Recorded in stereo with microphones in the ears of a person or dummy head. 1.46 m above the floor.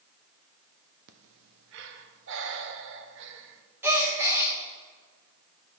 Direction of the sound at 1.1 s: 65° right (ahead or behind).